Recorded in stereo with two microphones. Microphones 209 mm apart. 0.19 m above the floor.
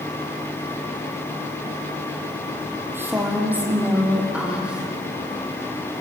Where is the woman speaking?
10° right (ahead or behind), 5.5 m; by 4.9 s 5° right (ahead or behind), 6.5 m.